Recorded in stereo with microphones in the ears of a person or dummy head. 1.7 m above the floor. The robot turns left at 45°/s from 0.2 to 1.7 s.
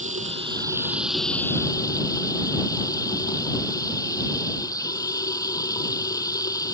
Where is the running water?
140° right; by 6.8 s 155° left.